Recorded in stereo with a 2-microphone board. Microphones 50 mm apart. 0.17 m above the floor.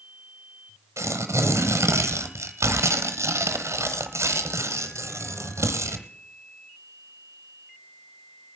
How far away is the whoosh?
I don't hear a whoosh.